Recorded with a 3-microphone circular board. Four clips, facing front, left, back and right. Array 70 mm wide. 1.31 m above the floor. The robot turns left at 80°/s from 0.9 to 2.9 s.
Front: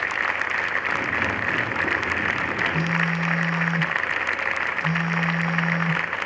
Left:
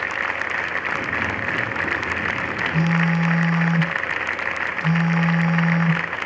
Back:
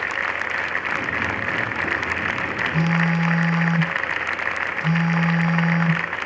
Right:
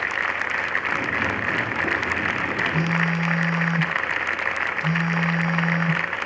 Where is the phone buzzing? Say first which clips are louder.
Left 2 dB, back 3 dB; 165° right, 4 m; by 6.0 s straight behind, 4 m.